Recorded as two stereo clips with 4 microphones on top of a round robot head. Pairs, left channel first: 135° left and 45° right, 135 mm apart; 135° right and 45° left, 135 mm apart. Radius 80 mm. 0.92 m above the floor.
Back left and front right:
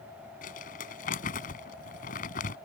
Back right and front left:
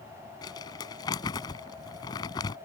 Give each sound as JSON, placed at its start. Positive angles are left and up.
{"t": 0.4, "sound": "crumpling", "azimuth_deg": 165}